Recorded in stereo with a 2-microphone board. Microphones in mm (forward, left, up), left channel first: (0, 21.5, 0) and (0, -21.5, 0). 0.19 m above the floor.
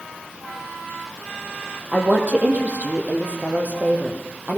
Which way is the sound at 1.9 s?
35° right (ahead or behind).